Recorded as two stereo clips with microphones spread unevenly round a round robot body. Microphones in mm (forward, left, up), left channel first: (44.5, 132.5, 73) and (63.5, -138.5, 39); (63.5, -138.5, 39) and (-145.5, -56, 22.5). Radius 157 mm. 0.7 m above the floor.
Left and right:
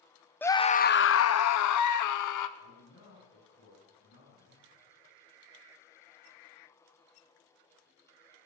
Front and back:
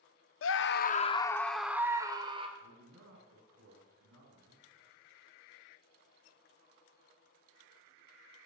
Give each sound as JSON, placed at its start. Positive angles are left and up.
{"t": 0.4, "sound": "a scream", "azimuth_deg": 5, "distance_m": 1.0}
{"t": 2.6, "sound": "a man speaking", "azimuth_deg": 145, "distance_m": 8.5}